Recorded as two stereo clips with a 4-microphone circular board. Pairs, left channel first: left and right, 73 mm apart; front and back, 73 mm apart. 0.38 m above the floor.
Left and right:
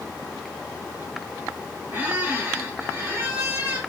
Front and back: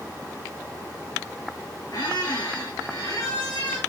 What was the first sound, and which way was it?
A squeak, 25° right.